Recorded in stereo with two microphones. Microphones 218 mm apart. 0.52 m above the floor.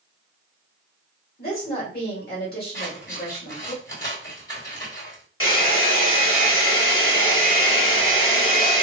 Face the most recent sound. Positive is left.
turn(degrees=70)  # may be behind; listen again after turning